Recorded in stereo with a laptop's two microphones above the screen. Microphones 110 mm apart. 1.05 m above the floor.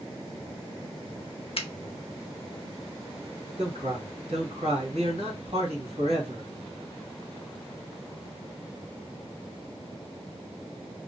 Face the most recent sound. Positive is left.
turn(degrees=-70)  # may be behind; listen again after turning